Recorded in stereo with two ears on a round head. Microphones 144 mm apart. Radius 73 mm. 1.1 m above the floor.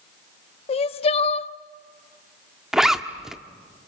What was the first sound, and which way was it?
Crying, 40° left (ahead or behind).